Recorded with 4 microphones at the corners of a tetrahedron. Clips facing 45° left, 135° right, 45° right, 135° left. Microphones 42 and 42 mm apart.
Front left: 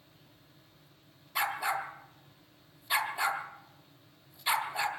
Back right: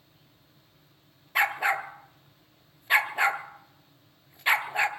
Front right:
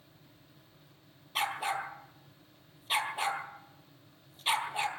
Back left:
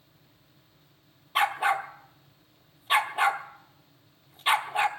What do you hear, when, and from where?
1.4 s a dog barking: 170° right, 0.9 m